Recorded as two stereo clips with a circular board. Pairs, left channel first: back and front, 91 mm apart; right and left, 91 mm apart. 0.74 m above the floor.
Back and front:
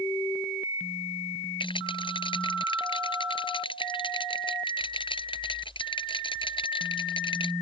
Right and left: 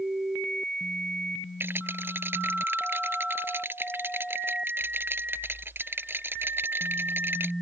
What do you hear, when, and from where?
1.6 s a rattle: 155° left